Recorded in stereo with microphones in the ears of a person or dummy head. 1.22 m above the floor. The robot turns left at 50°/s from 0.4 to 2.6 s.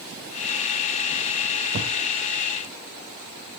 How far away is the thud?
About 1.9 m.